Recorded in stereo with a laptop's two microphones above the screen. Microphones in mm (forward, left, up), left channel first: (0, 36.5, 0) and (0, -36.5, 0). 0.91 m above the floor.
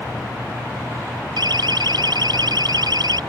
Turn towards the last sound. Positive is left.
turn(degrees=-70)  # may be behind; listen again after turning